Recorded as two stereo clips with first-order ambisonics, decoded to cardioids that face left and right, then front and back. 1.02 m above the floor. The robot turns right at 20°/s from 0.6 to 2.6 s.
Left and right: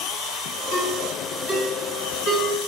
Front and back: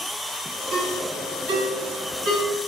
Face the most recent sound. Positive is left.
turn(degrees=160)